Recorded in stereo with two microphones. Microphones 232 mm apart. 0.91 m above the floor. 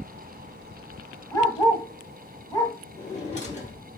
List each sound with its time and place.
1.3 s a dog barking: 15° left (ahead or behind), 1.6 m
3.0 s a drawer: 30° left (ahead or behind), 1.2 m